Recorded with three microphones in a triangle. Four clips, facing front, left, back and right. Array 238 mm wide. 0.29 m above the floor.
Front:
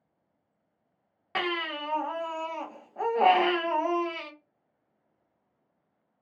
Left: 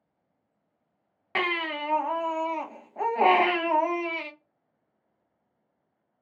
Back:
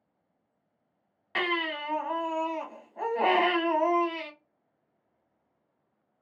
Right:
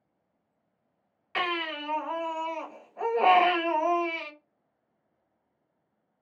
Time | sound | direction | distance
1.4 | a baby crying | 75° left | 0.7 m